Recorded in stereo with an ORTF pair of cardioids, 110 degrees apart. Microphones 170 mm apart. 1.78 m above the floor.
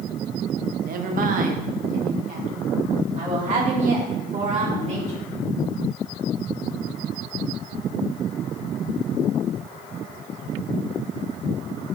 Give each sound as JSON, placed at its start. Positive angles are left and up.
{"t": 0.8, "sound": "a woman speaking", "azimuth_deg": -55, "distance_m": 1.4}